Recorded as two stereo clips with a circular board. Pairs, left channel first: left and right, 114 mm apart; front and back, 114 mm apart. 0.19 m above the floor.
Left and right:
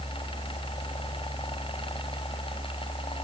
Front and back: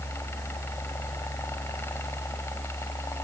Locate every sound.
Only background noise.